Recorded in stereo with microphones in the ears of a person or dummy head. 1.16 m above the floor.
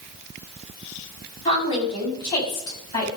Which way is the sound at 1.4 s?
25° left (ahead or behind).